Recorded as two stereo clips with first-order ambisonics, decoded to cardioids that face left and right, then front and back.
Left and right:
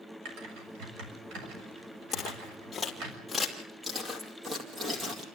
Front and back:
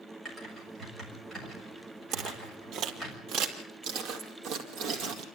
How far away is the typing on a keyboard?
About 7 m.